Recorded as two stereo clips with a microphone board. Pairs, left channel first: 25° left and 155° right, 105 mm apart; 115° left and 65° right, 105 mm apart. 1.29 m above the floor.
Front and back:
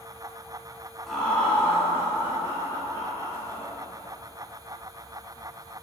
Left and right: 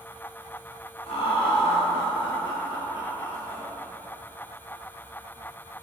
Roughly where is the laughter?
Left.